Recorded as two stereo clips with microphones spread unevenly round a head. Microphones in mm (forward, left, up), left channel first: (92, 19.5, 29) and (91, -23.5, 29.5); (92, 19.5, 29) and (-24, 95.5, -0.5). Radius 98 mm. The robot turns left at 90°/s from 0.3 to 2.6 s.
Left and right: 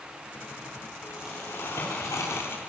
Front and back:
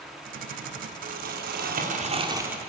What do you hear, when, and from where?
1.1 s crumpling: 165° right, 3 m; by 2.6 s 60° left, 3 m